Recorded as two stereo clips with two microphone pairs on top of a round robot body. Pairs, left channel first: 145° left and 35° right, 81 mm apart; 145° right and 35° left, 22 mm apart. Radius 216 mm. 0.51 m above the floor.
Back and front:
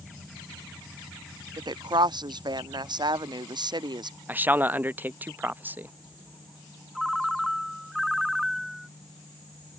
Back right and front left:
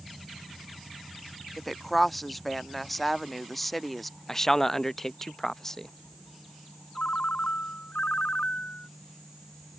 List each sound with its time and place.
1.6 s a woman speaking: 55° right
4.3 s a man speaking: 85° right
7.0 s a ringtone: 120° right